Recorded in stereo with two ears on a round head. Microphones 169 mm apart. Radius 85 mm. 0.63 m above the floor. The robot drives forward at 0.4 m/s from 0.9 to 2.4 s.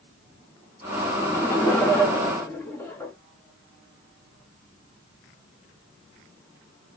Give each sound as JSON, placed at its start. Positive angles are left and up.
{"t": 1.2, "sound": "laughter", "side_deg": 10, "distance_m": 0.7}